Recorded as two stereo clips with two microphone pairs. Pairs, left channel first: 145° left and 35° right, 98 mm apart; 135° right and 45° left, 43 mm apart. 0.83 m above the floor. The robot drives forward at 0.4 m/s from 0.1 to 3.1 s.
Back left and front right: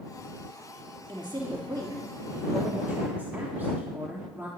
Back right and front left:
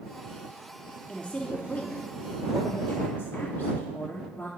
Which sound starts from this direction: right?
A woman speaking, at 1.1 s.